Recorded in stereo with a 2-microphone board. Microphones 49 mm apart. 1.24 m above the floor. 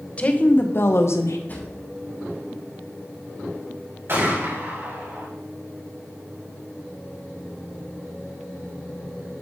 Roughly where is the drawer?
Left.